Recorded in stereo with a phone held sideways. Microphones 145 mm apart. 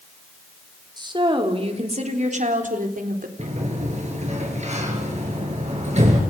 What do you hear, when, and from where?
1.0 s a woman speaking: 30° right (ahead or behind), 4 m; by 3.3 s 75° right (ahead or behind), 4 m
3.4 s a sliding door: 50° right (ahead or behind), 6 m